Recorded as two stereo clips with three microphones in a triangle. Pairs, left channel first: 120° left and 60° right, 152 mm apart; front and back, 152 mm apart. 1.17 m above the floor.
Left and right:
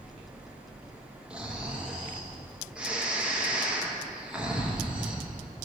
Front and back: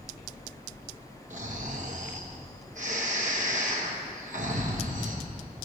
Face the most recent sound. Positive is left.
turn(degrees=-145)